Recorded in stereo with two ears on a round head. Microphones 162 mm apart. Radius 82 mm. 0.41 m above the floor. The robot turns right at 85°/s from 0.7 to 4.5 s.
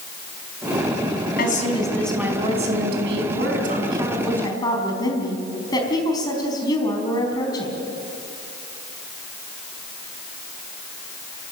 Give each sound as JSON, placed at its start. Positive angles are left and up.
{"t": 1.4, "sound": "a woman speaking", "azimuth_deg": 120, "distance_m": 4.0}